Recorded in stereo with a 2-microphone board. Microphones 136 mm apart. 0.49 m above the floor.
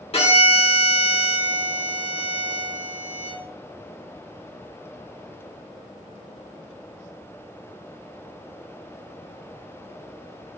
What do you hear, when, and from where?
0.1 s a violin: 45° left (ahead or behind), 1.4 m